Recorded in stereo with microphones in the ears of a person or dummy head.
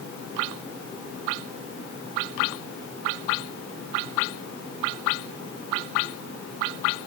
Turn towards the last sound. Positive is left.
No sound to turn to.